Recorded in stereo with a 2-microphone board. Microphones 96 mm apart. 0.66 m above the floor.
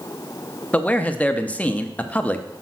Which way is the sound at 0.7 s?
15° left (ahead or behind).